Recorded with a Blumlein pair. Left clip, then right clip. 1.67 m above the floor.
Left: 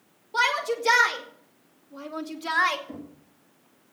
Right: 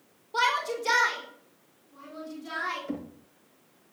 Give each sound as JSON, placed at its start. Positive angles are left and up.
{"t": 0.3, "sound": "a shout", "azimuth_deg": 5, "distance_m": 4.5}
{"t": 2.9, "sound": "knocking", "azimuth_deg": -20, "distance_m": 2.5}